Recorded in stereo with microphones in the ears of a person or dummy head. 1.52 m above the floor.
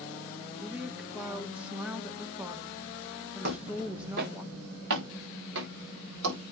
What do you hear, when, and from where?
0.6 s a woman speaking: 5° right (ahead or behind), 1.3 m
3.4 s footsteps: 60° right (ahead or behind), 3.5 m; by 6.4 s 70° right (ahead or behind), 8 m